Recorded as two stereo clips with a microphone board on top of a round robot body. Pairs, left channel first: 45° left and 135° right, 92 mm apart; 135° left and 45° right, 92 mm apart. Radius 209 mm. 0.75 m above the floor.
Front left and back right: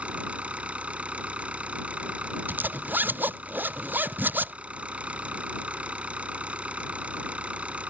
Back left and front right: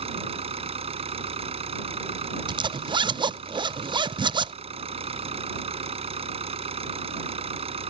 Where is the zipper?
65° right.